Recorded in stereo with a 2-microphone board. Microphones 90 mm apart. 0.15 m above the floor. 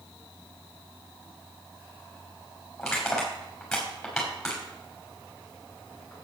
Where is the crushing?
5° left (ahead or behind), 5.5 m.